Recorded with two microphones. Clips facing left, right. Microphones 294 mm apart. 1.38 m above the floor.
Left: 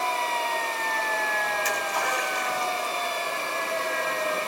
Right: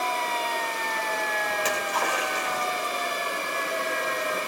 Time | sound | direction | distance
1.5 | a splash | 80° right | 7.5 m